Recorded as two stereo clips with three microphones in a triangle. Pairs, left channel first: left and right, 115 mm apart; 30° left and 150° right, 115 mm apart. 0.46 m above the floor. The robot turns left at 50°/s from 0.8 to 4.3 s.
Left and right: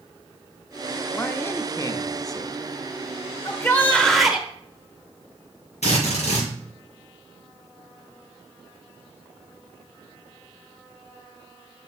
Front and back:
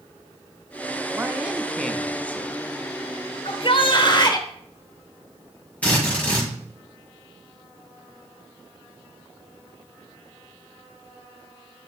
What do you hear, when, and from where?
1.1 s a man speaking: 155° left, 0.8 m; by 2.6 s 80° left, 0.8 m
3.5 s a shout: 40° left, 1.4 m; by 4.5 s 5° right, 1.4 m
5.8 s a drill: 110° left, 5.5 m